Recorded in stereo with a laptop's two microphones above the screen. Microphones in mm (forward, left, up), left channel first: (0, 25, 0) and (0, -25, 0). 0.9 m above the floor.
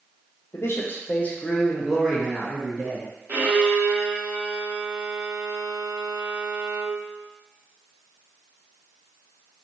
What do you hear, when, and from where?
0.5 s a man speaking: 60° left (ahead or behind), 0.6 m; by 3.1 s 20° right (ahead or behind), 1.1 m
3.3 s a violin: 40° right (ahead or behind), 0.9 m